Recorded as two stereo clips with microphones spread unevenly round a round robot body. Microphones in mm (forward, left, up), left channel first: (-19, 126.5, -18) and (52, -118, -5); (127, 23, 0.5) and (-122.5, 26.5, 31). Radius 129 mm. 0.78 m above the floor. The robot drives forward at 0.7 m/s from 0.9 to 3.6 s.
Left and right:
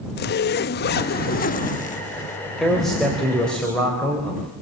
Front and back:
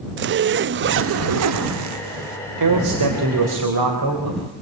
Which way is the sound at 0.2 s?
140° left.